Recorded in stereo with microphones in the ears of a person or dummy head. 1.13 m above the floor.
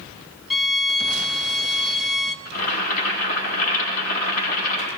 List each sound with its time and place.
0.5 s a violin: centre (ahead or behind), 0.8 m
2.5 s boiling: 50° left (ahead or behind), 7 m